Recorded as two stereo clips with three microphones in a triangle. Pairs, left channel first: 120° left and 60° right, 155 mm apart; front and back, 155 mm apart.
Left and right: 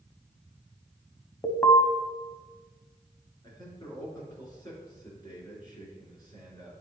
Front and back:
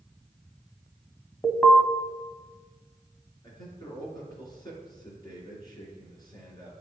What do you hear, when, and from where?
1.4 s an alarm: 65° left, 0.8 m
3.4 s a man speaking: 60° left, 3.5 m